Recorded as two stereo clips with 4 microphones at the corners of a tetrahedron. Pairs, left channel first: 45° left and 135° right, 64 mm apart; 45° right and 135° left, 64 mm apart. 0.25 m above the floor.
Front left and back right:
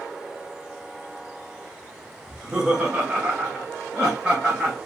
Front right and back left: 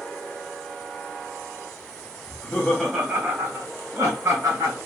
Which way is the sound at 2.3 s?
55° right.